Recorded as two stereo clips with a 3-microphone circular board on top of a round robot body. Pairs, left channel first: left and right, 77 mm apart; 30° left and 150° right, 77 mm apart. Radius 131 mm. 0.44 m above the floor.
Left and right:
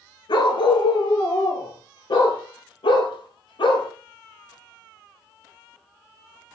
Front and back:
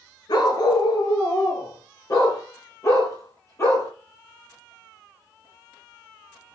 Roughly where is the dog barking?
Ahead left.